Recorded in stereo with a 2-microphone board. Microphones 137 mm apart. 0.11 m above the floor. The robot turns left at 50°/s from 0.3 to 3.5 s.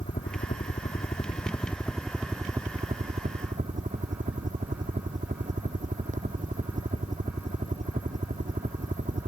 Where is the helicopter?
75° left (ahead or behind); by 9.3 s 70° right (ahead or behind).